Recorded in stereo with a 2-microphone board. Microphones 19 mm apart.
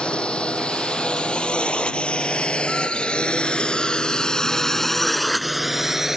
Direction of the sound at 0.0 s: 65° left (ahead or behind).